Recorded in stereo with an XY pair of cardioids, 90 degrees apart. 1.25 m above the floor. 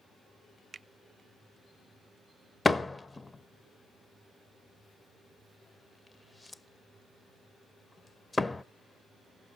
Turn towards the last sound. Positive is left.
turn(degrees=25)